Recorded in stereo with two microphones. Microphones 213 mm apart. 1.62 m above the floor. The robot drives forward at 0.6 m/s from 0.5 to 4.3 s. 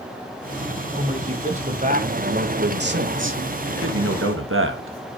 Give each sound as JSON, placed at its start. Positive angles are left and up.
{"t": 0.9, "sound": "a man speaking", "side_deg": -30, "distance_m": 2.0}